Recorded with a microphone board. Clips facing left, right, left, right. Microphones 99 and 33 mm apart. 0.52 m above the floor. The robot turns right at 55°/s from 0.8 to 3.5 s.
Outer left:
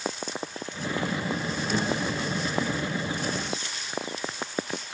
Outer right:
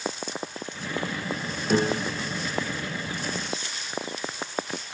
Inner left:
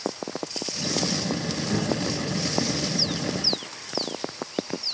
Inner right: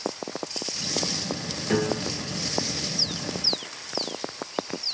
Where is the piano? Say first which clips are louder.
Outer right 5 dB, inner right 2 dB; 60° right, 3 m; by 2.4 s 25° right, 3 m.